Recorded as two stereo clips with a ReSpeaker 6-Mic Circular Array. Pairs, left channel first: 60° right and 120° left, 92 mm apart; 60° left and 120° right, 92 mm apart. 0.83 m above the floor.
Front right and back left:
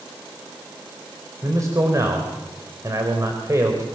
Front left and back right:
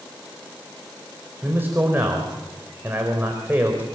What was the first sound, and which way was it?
A man speaking, 175° left.